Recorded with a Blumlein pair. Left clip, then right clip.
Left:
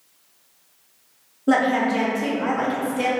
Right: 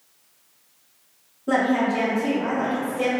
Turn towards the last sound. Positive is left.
turn(degrees=60)